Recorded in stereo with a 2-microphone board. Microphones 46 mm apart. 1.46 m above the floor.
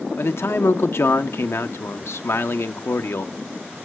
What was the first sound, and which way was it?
A man speaking, 65° left (ahead or behind).